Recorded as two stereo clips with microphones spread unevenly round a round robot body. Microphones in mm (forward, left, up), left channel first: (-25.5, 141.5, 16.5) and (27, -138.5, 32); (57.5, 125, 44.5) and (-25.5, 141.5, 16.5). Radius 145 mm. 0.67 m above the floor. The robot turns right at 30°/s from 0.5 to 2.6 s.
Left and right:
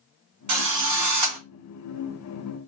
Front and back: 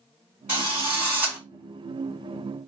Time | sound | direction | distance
0.5 | a drill | 110° right | 2.5 m